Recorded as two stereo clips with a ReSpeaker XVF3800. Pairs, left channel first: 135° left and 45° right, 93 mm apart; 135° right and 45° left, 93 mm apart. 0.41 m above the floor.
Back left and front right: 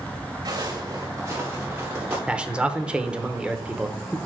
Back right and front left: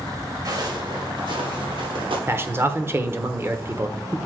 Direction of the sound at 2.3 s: 20° left.